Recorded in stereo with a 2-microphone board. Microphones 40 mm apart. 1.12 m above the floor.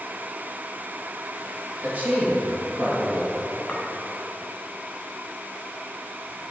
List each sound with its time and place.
1.8 s a man speaking: 45° right (ahead or behind), 2 m
3.7 s a clink: 25° left (ahead or behind), 1.4 m